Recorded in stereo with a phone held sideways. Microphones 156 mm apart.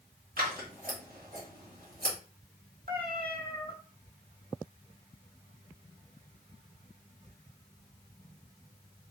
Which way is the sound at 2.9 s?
65° right (ahead or behind).